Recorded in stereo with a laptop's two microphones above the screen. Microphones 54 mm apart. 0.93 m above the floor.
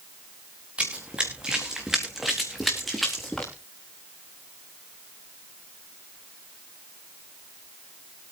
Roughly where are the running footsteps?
Right.